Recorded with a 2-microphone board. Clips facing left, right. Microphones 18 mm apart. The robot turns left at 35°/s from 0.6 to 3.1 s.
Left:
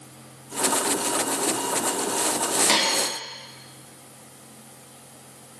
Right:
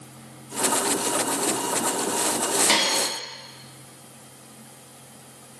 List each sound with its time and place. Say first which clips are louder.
2.7 s a dropped coin: even; centre (ahead or behind), 0.8 m; by 3.0 s 5° left (ahead or behind), 0.8 m